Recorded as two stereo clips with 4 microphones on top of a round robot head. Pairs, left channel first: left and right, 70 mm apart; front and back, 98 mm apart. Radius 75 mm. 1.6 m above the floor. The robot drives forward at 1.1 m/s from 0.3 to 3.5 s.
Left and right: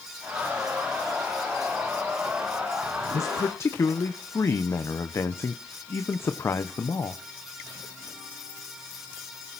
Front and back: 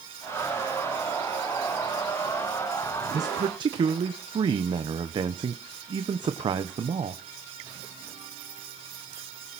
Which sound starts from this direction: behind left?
A man speaking, at 3.1 s.